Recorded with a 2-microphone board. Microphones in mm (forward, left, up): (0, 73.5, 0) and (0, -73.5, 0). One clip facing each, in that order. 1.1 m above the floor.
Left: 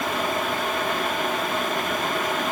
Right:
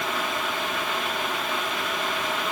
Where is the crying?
I don't hear crying.